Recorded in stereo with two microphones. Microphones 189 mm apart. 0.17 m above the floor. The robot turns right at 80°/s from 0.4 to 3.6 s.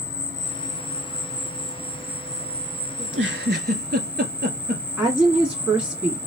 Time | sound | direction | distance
0.0 | an insect | 65° right | 1.0 m
3.0 | a giggle | 70° right (ahead or behind) | 0.7 m
5.0 | a woman speaking | 5° right (ahead or behind) | 1.4 m